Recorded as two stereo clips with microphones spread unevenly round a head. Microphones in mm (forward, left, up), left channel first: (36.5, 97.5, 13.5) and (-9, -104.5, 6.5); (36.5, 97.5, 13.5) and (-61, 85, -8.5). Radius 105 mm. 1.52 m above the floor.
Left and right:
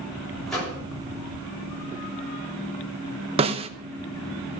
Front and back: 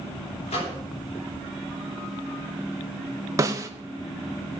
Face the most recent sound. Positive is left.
turn(degrees=-120)